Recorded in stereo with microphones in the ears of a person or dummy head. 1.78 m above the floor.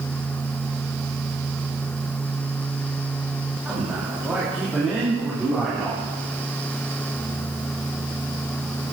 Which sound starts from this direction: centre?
A man speaking, at 3.6 s.